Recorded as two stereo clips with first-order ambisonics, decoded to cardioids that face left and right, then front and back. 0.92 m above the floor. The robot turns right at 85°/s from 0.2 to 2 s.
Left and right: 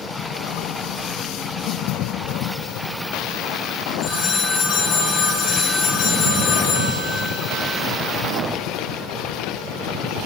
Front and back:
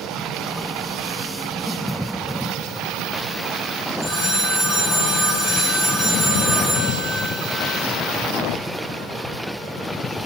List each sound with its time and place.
4.0 s a phone ringing: 105° left, 1.8 m